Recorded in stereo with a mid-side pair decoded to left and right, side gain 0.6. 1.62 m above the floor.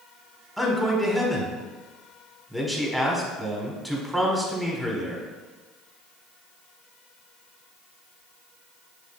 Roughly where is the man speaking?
Ahead.